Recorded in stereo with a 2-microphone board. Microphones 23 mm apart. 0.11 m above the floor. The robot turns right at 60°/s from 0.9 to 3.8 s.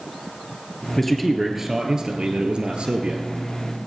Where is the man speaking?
160° left, 1.7 m; by 3.3 s 60° right, 1.7 m.